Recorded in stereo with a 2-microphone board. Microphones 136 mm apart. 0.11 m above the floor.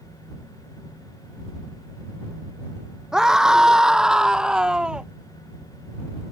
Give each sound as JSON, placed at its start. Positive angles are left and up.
{"t": 3.1, "sound": "a scream", "side_deg": -5}